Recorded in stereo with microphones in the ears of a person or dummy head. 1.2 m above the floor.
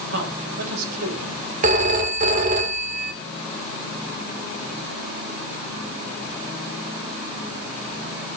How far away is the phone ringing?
About 2.0 m.